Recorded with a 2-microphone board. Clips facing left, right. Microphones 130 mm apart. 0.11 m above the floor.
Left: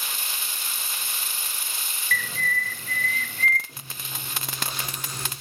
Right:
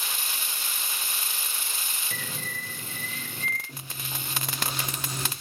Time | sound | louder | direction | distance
2.1 | a bird | left 10 dB | 20° right (ahead or behind) | 2 m
3.7 | chewing | right 2 dB | 25° right (ahead or behind) | 9.5 m